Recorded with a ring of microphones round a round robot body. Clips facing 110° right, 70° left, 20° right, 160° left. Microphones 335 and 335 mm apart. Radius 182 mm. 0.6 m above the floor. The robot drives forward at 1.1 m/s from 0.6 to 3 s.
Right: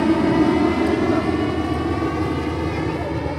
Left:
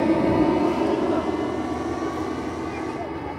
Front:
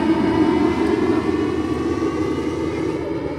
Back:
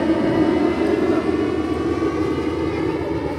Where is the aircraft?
75° right; by 3.4 s 115° right.